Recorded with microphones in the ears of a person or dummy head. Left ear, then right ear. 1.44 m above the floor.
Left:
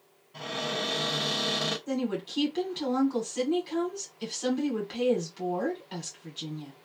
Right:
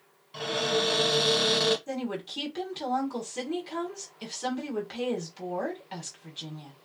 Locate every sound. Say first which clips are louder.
0.3 s a cupboard door: right 5 dB; 65° right (ahead or behind), 1.0 m
1.9 s a woman speaking: left 2 dB; 15° right (ahead or behind), 1.4 m